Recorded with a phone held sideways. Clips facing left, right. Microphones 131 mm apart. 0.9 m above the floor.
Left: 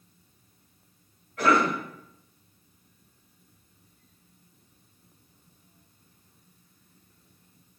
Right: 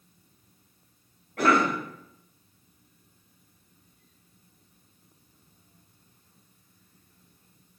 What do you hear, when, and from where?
1.4 s a cough: 60° right (ahead or behind), 1.8 m